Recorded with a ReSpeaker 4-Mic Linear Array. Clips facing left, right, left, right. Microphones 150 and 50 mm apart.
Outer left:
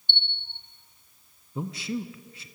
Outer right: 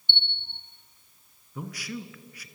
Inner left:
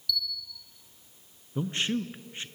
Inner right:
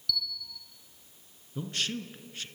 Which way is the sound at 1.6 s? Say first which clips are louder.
Outer left 5 dB, inner left 5 dB; 25° left (ahead or behind).